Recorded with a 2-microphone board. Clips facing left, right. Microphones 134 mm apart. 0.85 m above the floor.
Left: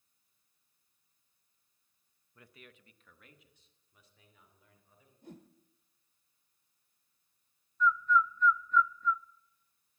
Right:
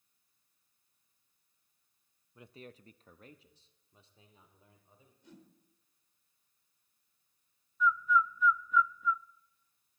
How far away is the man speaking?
About 0.7 m.